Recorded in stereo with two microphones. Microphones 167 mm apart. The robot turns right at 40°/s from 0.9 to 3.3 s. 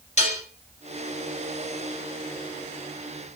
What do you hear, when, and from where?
0.2 s dishes clattering: 45° left (ahead or behind), 0.9 m